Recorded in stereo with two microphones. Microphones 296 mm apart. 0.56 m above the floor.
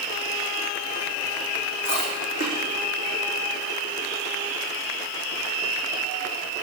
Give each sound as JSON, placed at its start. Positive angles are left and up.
{"t": 1.9, "sound": "chewing", "side_deg": -45, "distance_m": 6.5}